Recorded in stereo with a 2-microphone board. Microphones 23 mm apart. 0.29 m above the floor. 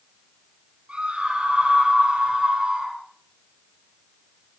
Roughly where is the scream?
Right.